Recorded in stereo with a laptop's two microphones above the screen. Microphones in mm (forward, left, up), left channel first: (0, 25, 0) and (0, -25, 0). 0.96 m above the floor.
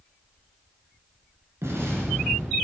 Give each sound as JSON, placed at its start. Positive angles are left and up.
{"t": 1.6, "sound": "an explosion", "side_deg": -65, "distance_m": 2.5}